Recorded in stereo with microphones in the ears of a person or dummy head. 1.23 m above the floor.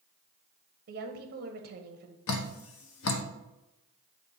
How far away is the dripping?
About 0.7 m.